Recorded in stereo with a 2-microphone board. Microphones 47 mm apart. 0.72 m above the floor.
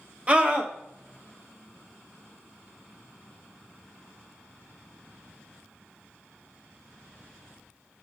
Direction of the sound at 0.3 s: 30° right (ahead or behind).